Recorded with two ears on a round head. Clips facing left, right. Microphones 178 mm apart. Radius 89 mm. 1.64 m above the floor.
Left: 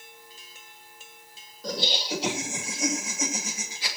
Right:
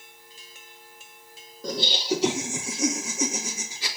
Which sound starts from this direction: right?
Laughter, at 1.6 s.